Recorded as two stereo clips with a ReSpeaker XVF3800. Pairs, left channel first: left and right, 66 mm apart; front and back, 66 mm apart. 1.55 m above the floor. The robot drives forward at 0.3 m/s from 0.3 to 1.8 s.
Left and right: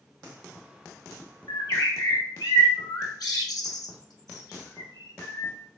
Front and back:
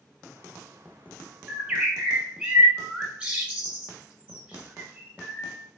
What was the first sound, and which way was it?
A bird, 105° left.